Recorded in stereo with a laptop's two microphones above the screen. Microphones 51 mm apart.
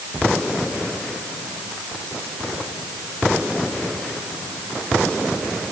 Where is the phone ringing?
I don't hear a phone ringing.